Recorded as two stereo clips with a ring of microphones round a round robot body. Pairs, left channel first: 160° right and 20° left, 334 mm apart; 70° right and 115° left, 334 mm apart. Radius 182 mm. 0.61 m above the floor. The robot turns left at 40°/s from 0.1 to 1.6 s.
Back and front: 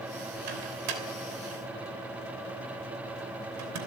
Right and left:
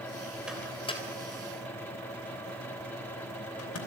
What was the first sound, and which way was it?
A microwave, 25° left.